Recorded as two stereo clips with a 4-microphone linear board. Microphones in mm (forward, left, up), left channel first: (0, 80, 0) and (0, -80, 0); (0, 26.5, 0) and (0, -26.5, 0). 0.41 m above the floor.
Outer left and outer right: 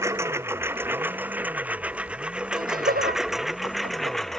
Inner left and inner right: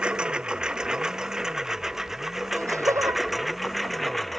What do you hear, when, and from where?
0.0 s a lawn mower: 15° right (ahead or behind); by 4.4 s 5° left (ahead or behind)
2.5 s laughter: 60° right (ahead or behind)